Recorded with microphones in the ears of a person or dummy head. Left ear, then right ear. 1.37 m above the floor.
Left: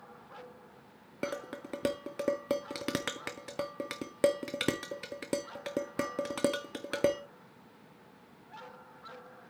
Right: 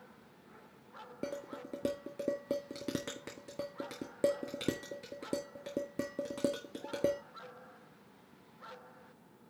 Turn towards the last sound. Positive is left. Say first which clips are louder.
# left 4 dB
turn(degrees=15)  # may be behind; listen again after turning